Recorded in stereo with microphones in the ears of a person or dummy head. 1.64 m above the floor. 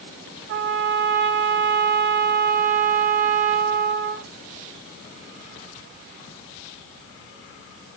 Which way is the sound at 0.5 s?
65° right (ahead or behind).